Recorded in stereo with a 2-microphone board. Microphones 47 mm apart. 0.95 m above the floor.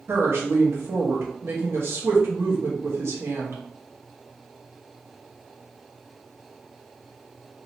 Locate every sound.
0.1 s a woman speaking: 60° right (ahead or behind), 1.1 m